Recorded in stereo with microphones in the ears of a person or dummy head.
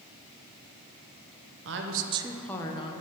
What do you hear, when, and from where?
1.6 s a woman speaking: 60° right (ahead or behind), 0.8 m; by 2.9 s 30° left (ahead or behind), 1.1 m